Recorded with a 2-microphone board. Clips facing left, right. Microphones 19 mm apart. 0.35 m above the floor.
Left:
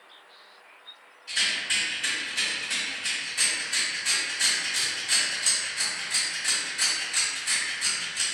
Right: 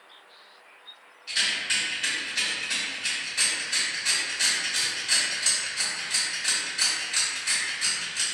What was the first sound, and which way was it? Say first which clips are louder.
A rattle: even; 40° right (ahead or behind).